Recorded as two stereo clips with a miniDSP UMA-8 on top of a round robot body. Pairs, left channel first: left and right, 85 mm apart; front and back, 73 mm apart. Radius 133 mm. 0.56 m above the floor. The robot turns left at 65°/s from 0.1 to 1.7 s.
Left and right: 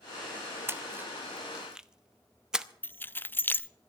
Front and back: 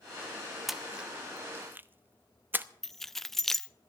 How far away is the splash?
About 1.0 m.